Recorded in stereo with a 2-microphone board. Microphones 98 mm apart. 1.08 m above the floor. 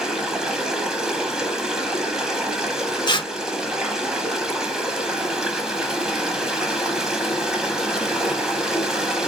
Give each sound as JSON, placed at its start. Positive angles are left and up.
{"t": 0.0, "sound": "running water", "side_deg": -10, "distance_m": 0.9}
{"t": 3.1, "sound": "tearing paper", "side_deg": 50, "distance_m": 0.5}